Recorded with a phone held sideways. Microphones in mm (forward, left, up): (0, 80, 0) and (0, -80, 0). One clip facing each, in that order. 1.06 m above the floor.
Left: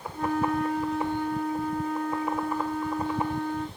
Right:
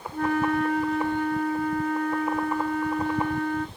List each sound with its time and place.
0.1 s a flute: 70° right (ahead or behind), 1.5 m